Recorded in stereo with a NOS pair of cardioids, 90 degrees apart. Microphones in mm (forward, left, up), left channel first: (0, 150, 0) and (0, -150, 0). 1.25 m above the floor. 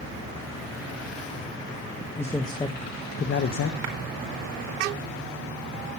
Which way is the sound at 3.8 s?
70° right.